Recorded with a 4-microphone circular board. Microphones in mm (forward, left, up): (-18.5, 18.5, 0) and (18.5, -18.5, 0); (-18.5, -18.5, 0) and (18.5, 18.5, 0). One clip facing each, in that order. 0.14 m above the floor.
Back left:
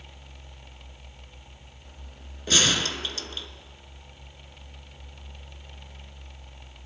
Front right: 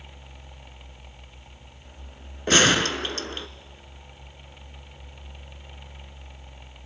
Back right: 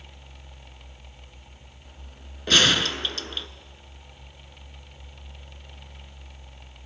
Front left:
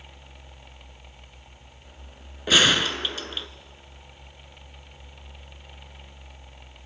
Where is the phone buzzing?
No phone buzzing in this recording.